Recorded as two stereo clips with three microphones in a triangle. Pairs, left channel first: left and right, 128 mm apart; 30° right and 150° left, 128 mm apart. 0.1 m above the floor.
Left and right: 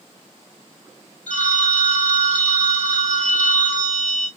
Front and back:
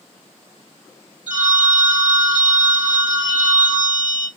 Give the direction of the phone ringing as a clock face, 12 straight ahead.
12 o'clock.